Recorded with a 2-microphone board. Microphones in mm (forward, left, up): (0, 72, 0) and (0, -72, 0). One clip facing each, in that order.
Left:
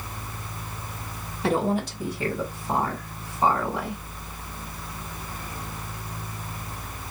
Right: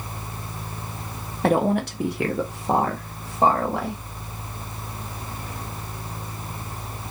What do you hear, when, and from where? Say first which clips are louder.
1.4 s a woman speaking: right 4 dB; 55° right (ahead or behind), 0.9 m; by 4.0 s 70° right (ahead or behind), 1.7 m